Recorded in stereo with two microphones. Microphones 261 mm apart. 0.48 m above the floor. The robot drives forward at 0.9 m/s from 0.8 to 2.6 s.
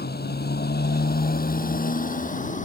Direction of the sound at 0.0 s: 40° left (ahead or behind).